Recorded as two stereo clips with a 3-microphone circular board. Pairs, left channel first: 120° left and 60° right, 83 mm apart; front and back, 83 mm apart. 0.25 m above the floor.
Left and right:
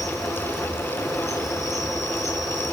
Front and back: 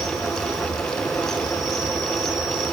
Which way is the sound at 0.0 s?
25° left.